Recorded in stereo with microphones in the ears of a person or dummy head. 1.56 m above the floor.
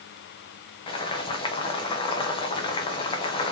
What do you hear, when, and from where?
0.9 s boiling: 30° left (ahead or behind), 1.0 m